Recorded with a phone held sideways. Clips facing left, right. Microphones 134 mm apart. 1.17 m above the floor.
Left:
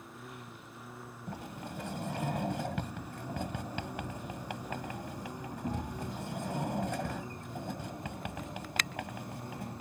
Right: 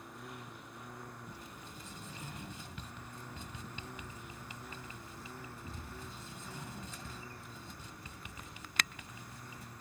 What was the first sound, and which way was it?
A lawn mower, centre (ahead or behind).